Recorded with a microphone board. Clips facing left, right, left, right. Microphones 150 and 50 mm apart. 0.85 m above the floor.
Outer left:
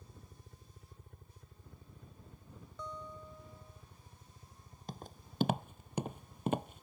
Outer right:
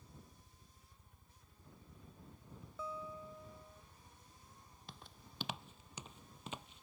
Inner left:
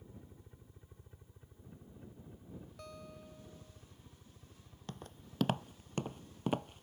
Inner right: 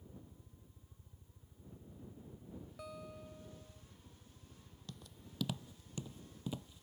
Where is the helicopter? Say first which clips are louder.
Outer left 3 dB, inner left 1 dB; 60° left (ahead or behind); by 6.8 s 45° left (ahead or behind).